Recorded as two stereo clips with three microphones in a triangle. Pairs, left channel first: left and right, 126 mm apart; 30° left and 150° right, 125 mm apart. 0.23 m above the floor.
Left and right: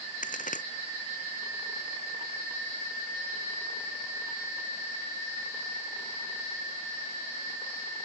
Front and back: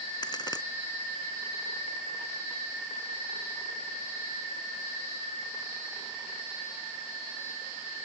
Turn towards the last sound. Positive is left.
turn(degrees=85)